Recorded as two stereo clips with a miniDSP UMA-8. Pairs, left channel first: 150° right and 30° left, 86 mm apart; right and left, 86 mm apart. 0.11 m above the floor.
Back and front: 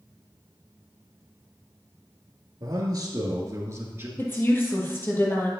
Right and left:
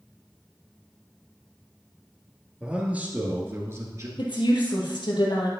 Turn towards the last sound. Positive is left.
turn(degrees=-90)